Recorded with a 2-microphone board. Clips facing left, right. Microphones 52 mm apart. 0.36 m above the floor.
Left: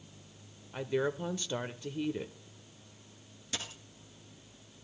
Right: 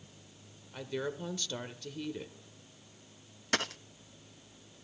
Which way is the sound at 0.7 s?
20° left (ahead or behind).